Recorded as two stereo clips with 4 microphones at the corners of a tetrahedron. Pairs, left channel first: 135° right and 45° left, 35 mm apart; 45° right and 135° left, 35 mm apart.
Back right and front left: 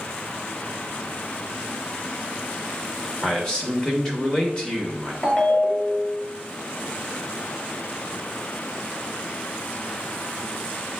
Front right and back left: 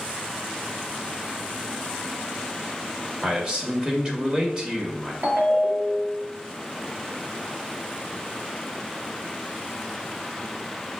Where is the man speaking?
Straight behind, 1.0 m.